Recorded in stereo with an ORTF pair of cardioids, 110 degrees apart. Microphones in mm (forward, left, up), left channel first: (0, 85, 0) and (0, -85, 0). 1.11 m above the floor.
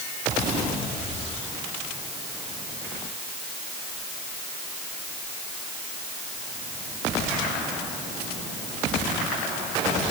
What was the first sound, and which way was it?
Only background noise.